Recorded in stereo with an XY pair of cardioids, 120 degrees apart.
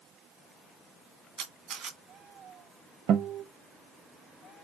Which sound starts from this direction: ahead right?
A guitar, at 3.1 s.